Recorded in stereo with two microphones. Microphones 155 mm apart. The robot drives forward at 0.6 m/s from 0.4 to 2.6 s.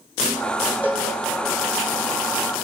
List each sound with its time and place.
0.8 s a cowbell: 10° right (ahead or behind), 4 m